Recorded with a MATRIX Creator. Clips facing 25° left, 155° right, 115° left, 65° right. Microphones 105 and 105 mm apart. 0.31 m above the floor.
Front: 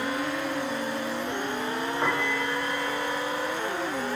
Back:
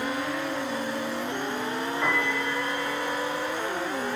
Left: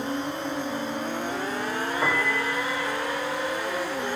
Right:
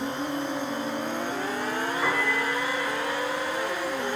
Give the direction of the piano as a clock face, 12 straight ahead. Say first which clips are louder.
Even, left 2 dB; 9 o'clock.